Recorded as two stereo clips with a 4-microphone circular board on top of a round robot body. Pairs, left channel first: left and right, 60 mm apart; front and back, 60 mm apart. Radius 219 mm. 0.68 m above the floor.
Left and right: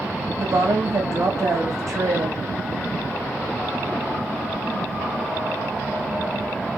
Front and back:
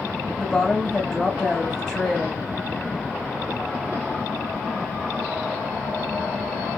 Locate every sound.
0.4 s a woman speaking: 85° right, 1.9 m